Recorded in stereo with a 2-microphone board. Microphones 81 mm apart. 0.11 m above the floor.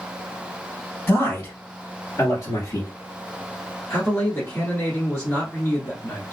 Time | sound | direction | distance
1.1 | a man speaking | 35° left (ahead or behind) | 1.9 m
3.9 | a man speaking | 35° left (ahead or behind) | 1.3 m